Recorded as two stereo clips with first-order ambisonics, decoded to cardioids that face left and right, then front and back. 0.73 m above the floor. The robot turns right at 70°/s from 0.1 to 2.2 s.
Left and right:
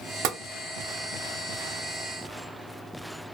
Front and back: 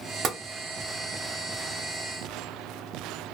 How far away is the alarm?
I don't hear an alarm.